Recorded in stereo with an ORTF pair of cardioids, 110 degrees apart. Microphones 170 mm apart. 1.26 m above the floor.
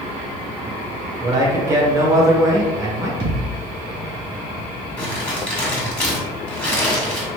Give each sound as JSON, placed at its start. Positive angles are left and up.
{"t": 1.2, "sound": "a man speaking", "azimuth_deg": -20, "distance_m": 1.2}
{"t": 3.2, "sound": "a thud", "azimuth_deg": -70, "distance_m": 1.7}
{"t": 5.0, "sound": "crumpling", "azimuth_deg": 10, "distance_m": 1.7}